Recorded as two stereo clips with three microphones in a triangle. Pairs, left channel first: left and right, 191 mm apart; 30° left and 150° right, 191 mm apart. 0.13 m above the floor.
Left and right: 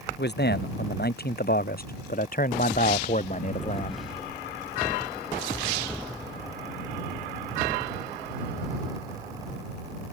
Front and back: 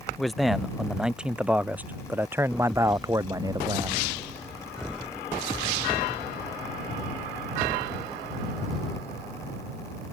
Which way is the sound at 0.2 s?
120° left.